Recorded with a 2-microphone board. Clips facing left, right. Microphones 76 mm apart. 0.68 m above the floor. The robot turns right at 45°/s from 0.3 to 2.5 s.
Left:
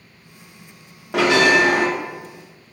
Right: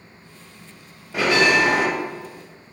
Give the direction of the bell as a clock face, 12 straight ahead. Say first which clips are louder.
Left 3 dB; 9 o'clock.